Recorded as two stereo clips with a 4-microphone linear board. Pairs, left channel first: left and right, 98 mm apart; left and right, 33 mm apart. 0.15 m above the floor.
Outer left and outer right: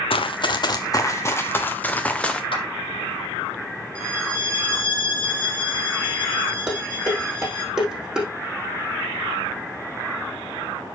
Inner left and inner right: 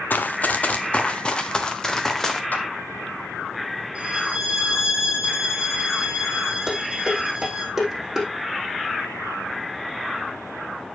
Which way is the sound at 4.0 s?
25° right (ahead or behind).